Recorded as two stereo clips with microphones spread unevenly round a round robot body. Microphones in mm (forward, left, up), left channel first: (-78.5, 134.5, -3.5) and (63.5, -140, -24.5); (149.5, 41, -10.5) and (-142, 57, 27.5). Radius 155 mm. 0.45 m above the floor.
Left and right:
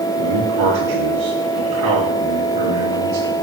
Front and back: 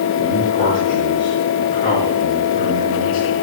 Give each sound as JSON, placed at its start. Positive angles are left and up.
{"t": 0.2, "sound": "a man speaking", "azimuth_deg": -80, "distance_m": 5.0}